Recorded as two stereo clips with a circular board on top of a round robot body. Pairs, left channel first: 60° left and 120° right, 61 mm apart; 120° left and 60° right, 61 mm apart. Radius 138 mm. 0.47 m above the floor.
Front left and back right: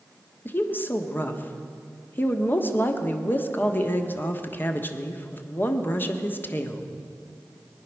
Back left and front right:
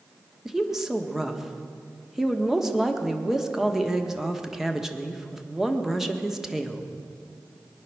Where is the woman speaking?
20° left, 1.5 m.